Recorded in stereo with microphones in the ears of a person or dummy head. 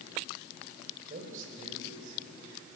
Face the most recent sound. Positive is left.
turn(degrees=-55)  # may be behind; listen again after turning